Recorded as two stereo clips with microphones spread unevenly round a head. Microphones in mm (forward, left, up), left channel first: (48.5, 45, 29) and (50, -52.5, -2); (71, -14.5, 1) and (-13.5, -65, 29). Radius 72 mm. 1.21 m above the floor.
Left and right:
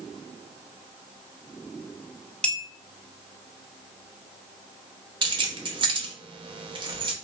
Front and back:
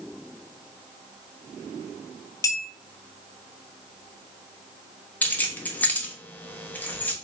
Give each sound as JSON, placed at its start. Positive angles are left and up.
{"t": 2.4, "sound": "a clink", "azimuth_deg": 100, "distance_m": 0.6}
{"t": 5.2, "sound": "keys jangling", "azimuth_deg": -50, "distance_m": 1.0}